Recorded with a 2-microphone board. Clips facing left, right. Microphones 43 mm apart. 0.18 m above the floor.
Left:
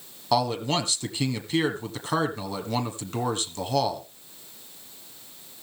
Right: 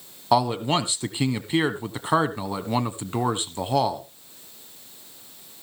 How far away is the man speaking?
About 1.3 m.